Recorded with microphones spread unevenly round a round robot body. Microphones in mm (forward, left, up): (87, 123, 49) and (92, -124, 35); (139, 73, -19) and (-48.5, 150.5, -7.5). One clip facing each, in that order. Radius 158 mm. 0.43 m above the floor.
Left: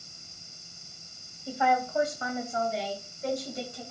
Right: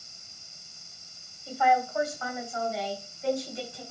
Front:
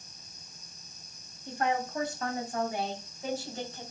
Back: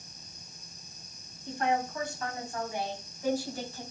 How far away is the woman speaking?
About 3 m.